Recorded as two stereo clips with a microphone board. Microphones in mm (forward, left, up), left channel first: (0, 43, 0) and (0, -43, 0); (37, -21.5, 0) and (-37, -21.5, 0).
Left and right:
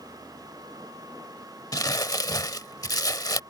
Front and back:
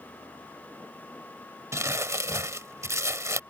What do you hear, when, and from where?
1.7 s crumpling: 135° left